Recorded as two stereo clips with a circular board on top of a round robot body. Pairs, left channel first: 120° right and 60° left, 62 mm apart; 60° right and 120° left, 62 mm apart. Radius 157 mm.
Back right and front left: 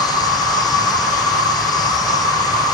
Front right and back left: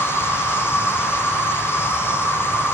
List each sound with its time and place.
0.0 s an insect: 115° right, 1.1 m